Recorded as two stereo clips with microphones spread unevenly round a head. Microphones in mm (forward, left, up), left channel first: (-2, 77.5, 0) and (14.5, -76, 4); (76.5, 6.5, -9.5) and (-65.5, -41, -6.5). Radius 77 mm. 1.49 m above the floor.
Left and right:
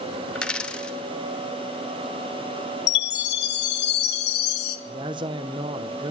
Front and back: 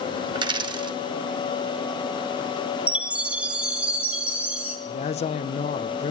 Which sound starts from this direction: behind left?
A chime, at 2.9 s.